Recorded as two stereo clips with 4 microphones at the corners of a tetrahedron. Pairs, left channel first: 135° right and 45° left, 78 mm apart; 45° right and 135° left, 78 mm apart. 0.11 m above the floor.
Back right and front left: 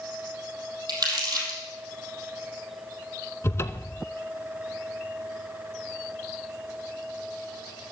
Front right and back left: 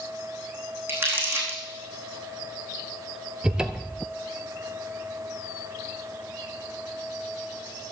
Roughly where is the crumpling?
Left.